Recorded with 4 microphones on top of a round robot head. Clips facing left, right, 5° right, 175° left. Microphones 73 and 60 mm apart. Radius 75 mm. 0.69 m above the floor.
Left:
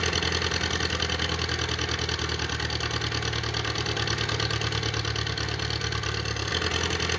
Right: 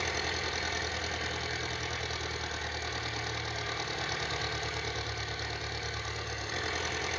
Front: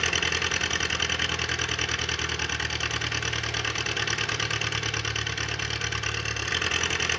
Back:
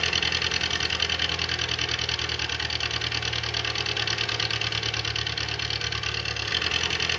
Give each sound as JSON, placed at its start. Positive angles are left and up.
{"t": 0.0, "sound": "an engine running", "azimuth_deg": 70, "distance_m": 2.0}